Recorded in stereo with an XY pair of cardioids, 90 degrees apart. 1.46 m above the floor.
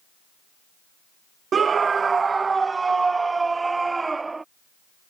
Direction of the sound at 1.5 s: 50° right.